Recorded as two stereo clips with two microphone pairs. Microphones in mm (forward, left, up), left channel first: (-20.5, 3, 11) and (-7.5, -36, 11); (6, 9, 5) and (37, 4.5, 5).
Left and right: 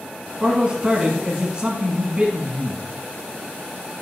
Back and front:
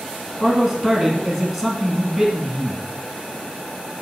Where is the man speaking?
100° right, 1.2 m.